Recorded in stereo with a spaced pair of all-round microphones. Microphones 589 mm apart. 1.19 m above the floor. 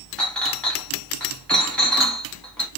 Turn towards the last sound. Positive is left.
turn(degrees=0)  # may be behind; listen again after turning